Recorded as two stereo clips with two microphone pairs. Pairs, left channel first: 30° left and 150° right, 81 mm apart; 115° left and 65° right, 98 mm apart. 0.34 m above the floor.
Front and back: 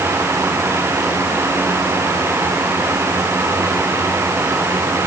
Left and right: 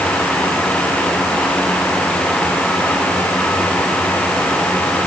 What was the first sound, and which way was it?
Only background noise.